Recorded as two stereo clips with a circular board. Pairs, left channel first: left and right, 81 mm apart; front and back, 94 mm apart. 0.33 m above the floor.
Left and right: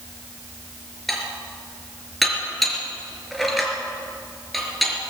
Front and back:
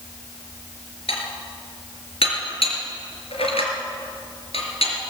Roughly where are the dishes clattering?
Ahead.